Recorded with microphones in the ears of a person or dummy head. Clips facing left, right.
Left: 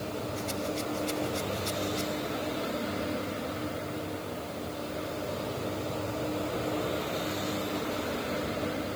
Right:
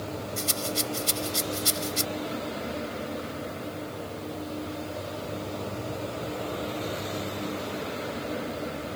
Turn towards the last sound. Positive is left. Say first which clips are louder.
# right 1 dB
turn(degrees=-75)  # may be behind; listen again after turning